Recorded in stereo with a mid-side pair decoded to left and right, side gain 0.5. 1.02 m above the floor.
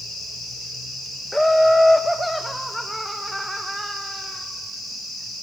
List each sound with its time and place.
1.3 s laughter: 5° left, 1.1 m; by 4.4 s 5° right, 3 m